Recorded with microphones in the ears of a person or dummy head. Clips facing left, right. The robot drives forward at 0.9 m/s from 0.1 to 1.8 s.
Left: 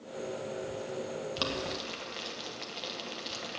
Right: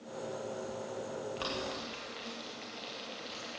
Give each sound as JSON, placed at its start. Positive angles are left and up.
{"t": 1.4, "sound": "boiling", "side_deg": 50, "distance_m": 1.5}